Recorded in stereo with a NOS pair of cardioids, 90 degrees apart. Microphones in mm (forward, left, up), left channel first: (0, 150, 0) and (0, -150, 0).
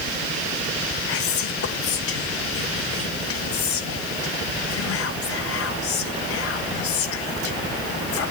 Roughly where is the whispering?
Ahead left.